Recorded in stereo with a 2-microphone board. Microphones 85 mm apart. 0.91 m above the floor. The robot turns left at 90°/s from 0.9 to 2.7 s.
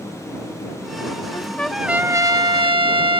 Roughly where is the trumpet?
Ahead left.